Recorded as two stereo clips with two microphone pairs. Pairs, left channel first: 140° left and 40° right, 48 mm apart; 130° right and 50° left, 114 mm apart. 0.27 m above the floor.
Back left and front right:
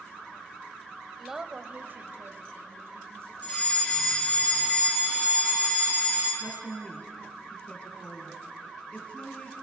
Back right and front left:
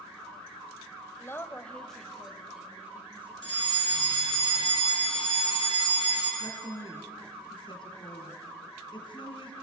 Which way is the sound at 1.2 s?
130° right.